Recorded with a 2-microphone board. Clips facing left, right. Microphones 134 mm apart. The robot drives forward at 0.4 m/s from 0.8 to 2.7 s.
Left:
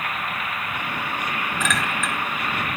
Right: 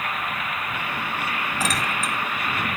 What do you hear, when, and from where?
1.6 s a clink: 40° right (ahead or behind), 2.5 m